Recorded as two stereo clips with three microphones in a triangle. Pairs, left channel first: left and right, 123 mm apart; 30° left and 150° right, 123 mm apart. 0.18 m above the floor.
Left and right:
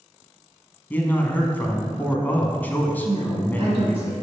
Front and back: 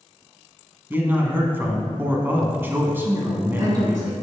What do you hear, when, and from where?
0.9 s a man speaking: 155° left, 1.2 m
3.0 s a woman speaking: 105° right, 2 m